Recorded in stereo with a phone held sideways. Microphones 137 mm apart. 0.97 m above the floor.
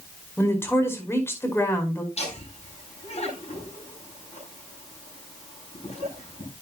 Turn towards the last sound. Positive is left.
turn(degrees=55)  # may be behind; listen again after turning